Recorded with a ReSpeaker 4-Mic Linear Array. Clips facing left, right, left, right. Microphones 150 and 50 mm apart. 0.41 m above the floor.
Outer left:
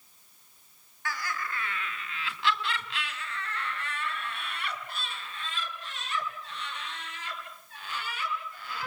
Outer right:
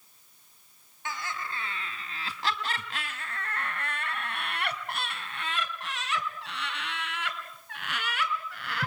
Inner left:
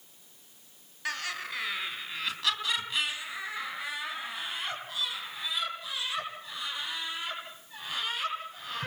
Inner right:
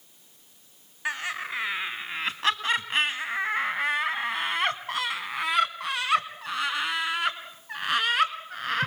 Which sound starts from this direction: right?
Laughter, at 1.1 s.